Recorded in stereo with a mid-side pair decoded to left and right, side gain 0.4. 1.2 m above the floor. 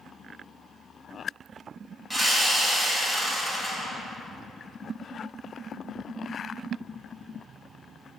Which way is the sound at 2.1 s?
15° right.